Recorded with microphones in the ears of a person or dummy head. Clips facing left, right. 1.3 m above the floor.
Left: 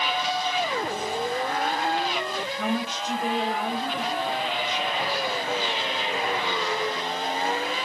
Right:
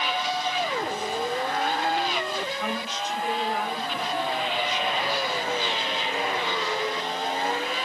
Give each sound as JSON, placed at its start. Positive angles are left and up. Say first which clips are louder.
{"t": 2.4, "sound": "a woman speaking", "louder": "left 3 dB", "side_deg": 80, "distance_m": 6.0}